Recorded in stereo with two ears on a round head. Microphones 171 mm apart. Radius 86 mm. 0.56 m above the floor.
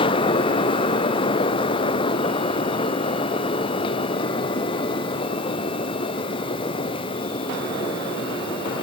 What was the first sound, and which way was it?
Only background noise.